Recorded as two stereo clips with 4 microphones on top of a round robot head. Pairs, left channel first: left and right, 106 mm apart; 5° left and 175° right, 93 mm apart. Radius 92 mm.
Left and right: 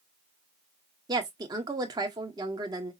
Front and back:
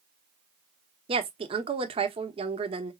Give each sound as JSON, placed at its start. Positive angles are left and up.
{"t": 1.1, "sound": "a woman speaking", "azimuth_deg": -145, "distance_m": 1.0}